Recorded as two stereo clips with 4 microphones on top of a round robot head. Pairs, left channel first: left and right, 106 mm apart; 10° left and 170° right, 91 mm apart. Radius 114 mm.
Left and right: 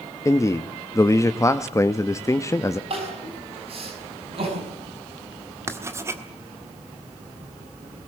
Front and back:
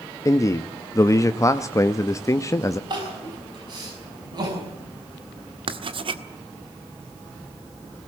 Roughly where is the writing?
Behind right.